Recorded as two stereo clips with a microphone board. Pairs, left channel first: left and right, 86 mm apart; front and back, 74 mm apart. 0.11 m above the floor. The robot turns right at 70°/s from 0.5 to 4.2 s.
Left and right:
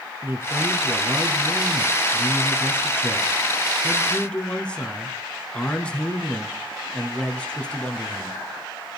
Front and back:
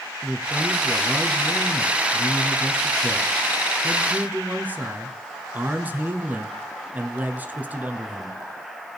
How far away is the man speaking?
About 1.2 m.